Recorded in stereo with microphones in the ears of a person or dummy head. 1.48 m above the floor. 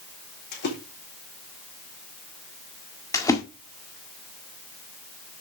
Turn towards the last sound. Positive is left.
turn(degrees=15)  # may be behind; listen again after turning